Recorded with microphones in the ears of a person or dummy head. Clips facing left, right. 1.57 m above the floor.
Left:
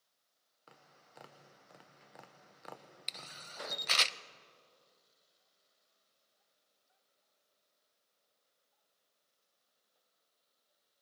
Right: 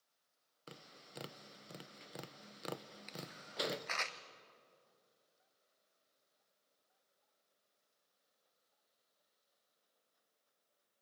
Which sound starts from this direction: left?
A camera shutter, at 3.1 s.